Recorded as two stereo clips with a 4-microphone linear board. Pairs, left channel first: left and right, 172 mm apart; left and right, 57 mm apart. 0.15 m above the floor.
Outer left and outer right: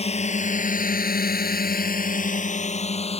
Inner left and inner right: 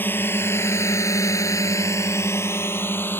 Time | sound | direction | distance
0.0 | a drone | 35° left (ahead or behind) | ?